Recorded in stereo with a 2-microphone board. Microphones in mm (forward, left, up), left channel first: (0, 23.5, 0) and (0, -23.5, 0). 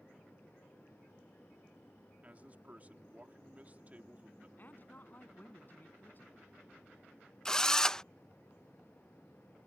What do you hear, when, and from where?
2.2 s a man speaking: 35° right (ahead or behind)
4.6 s a woman speaking: 40° left (ahead or behind)
7.5 s a drill: 15° left (ahead or behind)